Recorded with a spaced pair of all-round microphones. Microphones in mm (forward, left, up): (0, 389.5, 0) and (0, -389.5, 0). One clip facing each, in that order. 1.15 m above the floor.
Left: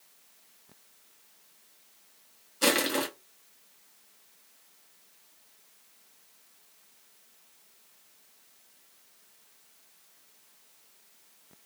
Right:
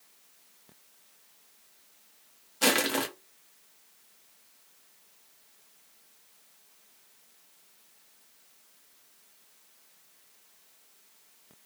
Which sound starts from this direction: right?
Crushing, at 2.6 s.